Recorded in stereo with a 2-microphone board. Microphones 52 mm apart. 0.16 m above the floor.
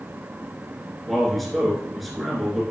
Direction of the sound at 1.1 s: Centre (ahead or behind).